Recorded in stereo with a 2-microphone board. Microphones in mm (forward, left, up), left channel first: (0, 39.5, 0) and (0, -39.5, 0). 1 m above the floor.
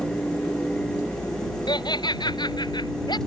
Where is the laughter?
75° left (ahead or behind).